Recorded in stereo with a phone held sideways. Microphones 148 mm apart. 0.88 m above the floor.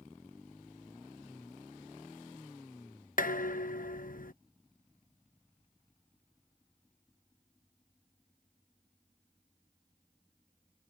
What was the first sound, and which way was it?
Dishes clattering, 70° left (ahead or behind).